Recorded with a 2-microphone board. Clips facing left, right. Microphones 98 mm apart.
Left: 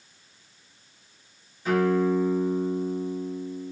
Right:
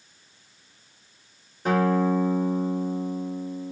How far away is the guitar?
About 1.5 m.